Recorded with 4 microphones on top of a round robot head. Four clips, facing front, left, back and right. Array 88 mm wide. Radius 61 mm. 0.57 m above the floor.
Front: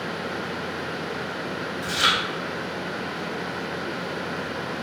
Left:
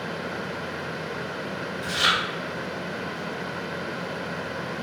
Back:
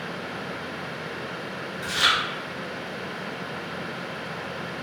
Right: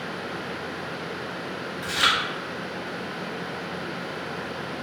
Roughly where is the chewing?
Right.